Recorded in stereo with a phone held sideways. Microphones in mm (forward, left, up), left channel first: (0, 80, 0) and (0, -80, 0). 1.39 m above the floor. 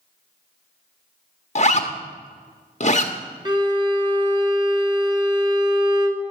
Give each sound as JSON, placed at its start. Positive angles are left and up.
{"t": 1.6, "sound": "a zipper", "side_deg": 45, "distance_m": 1.1}
{"t": 3.5, "sound": "a violin", "side_deg": -25, "distance_m": 1.0}